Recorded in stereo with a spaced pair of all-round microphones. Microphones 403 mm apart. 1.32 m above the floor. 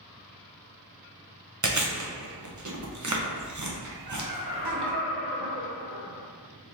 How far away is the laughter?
About 1.3 m.